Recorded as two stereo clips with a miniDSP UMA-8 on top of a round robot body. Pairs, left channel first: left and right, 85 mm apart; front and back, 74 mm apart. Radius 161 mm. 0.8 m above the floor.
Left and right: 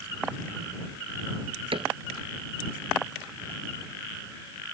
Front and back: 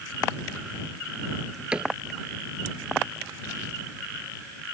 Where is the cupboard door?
100° right.